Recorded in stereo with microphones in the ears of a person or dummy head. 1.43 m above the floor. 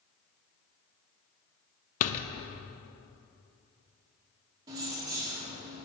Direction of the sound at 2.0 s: 50° left (ahead or behind).